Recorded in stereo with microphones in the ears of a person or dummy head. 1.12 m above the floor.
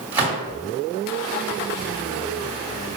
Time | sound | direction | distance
0.1 | a gunshot | 10° right (ahead or behind) | 2.5 m